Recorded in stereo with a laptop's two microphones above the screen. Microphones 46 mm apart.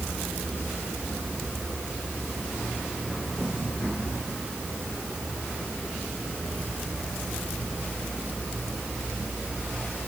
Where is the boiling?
I don't hear boiling.